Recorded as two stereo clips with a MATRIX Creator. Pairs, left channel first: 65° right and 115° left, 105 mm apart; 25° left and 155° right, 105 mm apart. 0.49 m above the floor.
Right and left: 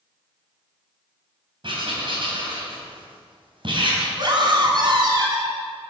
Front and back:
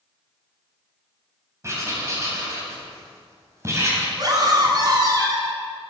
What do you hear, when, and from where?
1.6 s writing: 145° left, 3.5 m
4.2 s a scream: 155° left, 3.5 m